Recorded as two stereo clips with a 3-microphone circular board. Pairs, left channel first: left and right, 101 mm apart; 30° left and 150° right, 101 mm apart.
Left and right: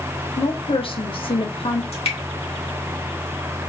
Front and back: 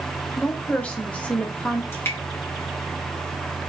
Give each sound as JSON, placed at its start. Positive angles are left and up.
{"t": 0.4, "sound": "a woman speaking", "azimuth_deg": 105, "distance_m": 1.0}
{"t": 1.9, "sound": "dripping", "azimuth_deg": 95, "distance_m": 1.7}